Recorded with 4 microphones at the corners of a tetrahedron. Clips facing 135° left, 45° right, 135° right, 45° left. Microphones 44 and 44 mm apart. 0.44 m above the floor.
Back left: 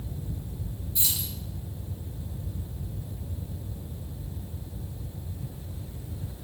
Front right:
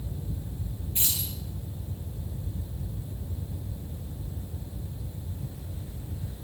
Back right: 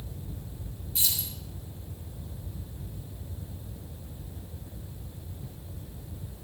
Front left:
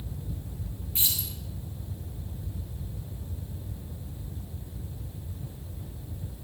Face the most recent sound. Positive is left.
turn(degrees=-5)